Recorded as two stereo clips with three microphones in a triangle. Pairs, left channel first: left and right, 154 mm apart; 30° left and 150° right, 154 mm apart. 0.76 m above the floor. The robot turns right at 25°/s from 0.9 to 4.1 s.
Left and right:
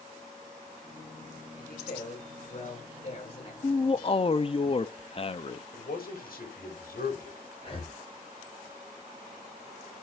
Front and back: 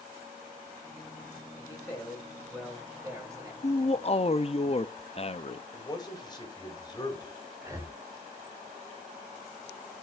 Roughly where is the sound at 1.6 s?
Left.